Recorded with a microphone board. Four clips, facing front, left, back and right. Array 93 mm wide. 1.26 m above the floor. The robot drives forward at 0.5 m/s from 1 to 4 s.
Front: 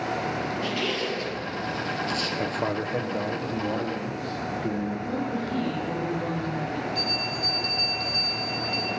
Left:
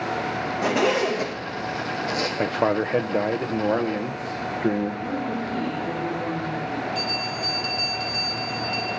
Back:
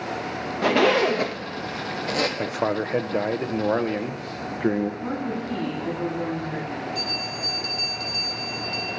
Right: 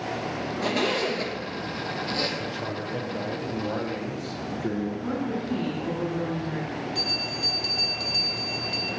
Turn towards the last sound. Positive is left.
turn(degrees=-95)